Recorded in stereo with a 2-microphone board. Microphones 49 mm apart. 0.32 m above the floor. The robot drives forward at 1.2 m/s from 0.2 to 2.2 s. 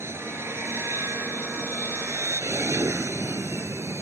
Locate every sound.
0.0 s an aircraft: 60° right (ahead or behind); by 4.0 s 65° right (ahead or behind)